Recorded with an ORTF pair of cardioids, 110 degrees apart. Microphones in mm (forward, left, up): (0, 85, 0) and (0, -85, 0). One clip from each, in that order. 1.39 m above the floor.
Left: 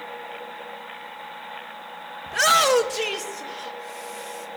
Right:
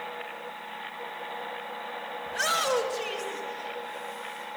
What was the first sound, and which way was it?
A shout, 40° left.